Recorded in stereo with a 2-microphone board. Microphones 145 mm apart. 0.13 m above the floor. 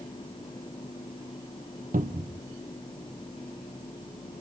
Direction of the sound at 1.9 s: 70° right (ahead or behind).